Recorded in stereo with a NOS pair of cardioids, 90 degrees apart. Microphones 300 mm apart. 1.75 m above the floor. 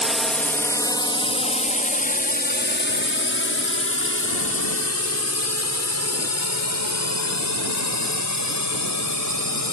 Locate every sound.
0.0 s a drone: straight ahead; by 9.7 s 60° left